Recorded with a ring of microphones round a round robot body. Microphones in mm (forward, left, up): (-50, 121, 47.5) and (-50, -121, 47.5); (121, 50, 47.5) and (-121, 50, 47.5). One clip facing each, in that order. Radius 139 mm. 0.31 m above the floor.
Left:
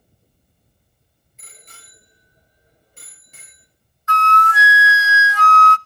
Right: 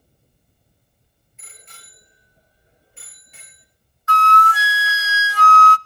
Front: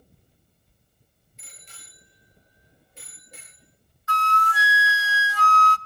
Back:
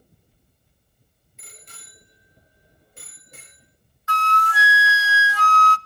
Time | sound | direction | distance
1.4 | a bicycle bell | 140° left | 6 m
4.1 | a flute | 150° right | 0.5 m